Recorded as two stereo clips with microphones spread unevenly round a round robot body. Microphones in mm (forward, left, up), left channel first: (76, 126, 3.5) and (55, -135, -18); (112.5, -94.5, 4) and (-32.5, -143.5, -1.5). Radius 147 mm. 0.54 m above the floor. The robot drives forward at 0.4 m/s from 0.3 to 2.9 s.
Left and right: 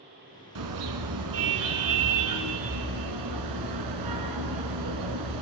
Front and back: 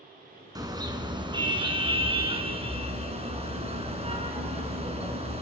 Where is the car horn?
95° right, 3 m; by 5.4 s 110° right, 3.5 m.